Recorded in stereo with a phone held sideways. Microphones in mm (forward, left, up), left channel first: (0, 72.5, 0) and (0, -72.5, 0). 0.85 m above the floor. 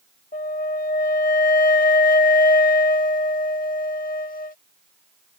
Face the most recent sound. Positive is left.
turn(degrees=65)  # may be behind; listen again after turning